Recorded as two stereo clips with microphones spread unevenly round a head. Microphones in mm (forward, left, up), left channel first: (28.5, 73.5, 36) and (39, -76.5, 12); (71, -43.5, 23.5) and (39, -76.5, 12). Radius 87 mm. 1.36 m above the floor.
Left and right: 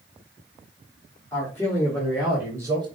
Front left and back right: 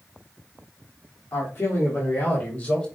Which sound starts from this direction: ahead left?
A man speaking, at 1.3 s.